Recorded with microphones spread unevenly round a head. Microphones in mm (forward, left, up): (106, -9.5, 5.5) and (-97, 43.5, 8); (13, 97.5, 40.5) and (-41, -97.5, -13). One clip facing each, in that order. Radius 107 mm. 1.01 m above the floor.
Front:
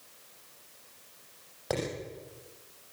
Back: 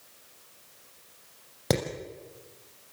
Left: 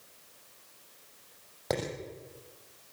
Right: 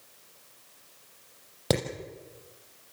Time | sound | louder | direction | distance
1.7 | hammering | back 5 dB, right 4 dB | 150° right | 6 m